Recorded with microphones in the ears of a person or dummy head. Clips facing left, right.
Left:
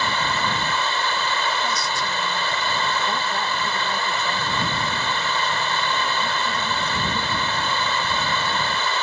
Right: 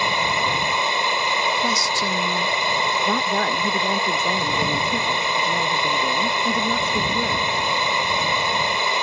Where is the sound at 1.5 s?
70° right (ahead or behind).